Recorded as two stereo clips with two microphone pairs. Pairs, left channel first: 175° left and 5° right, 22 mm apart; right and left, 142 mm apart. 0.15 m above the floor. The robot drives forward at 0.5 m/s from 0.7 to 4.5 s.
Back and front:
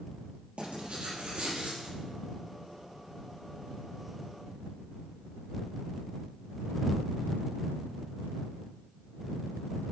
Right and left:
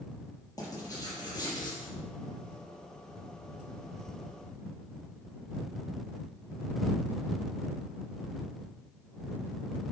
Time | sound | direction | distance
0.6 | writing | 30° right | 4 m